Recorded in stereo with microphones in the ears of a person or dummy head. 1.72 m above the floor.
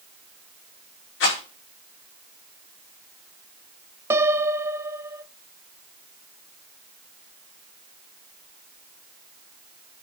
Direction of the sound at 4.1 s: 15° right (ahead or behind).